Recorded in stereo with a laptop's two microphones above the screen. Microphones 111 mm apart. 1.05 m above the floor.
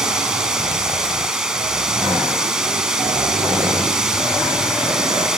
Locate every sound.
0.0 s running water: 5° right (ahead or behind), 1.0 m